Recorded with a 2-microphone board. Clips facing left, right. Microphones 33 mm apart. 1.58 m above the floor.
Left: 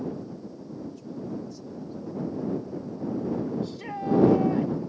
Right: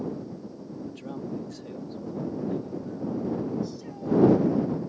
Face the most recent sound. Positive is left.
turn(degrees=50)  # may be behind; listen again after turning